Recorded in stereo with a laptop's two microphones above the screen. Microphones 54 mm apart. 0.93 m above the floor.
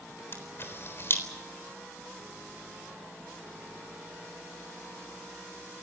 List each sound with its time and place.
0.3 s a camera shutter: 45° left (ahead or behind), 4 m